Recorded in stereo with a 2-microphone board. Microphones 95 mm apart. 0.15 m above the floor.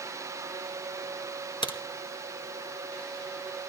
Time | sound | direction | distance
1.6 | a crack | 60° left (ahead or behind) | 1.6 m